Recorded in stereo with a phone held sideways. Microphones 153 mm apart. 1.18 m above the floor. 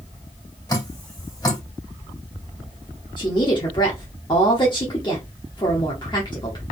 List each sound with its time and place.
0.7 s dripping: 25° left (ahead or behind), 2.5 m
3.2 s a woman speaking: 30° left (ahead or behind), 1.0 m